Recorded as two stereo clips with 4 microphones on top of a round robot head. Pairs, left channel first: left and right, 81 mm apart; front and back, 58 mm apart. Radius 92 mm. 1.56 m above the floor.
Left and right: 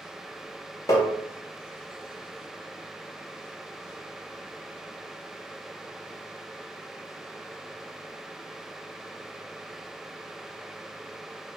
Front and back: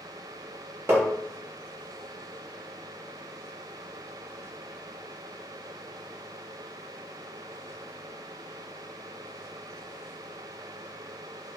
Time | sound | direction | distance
0.9 | tapping | 135° left | 0.7 m